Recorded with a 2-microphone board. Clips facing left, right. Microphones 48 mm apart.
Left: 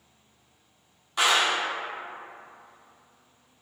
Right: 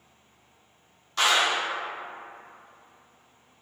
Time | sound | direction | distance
1.2 | a clap | 15° left (ahead or behind) | 0.7 m